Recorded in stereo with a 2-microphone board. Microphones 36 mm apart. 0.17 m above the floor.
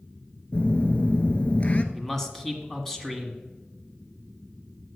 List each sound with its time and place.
0.5 s a phone buzzing: 35° left (ahead or behind), 1.0 m
1.9 s a man speaking: 10° left (ahead or behind), 1.6 m